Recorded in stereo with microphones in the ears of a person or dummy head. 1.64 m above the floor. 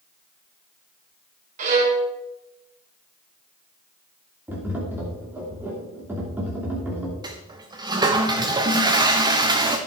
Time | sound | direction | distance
1.6 | a violin | 45° right (ahead or behind) | 2.5 m
4.5 | tapping | 10° right (ahead or behind) | 3 m
7.2 | a toilet flushing | 25° right (ahead or behind) | 1.0 m